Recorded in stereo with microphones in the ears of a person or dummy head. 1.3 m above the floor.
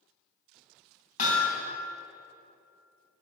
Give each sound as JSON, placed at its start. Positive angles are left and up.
{"t": 1.2, "sound": "hammering", "side_deg": 45, "distance_m": 2.5}